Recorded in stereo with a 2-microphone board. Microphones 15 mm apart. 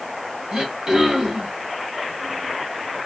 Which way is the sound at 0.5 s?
30° right (ahead or behind).